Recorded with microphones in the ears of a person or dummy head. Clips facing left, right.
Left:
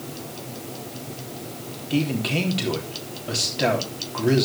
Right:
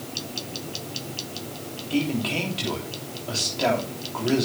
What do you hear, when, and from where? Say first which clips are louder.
1.9 s a man speaking: left 1 dB; 20° left (ahead or behind), 3 m